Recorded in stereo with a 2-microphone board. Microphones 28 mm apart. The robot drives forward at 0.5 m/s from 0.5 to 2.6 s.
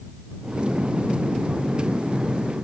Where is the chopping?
No chopping in this recording.